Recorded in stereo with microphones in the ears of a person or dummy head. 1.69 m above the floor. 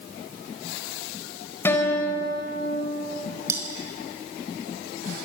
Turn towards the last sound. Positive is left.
turn(degrees=-20)  # may be behind; listen again after turning